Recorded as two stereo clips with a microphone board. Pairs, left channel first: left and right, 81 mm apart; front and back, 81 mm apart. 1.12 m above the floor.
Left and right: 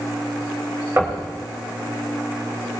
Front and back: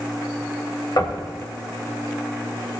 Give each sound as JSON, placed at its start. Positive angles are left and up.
{"t": 1.0, "sound": "knocking", "azimuth_deg": -35, "distance_m": 3.0}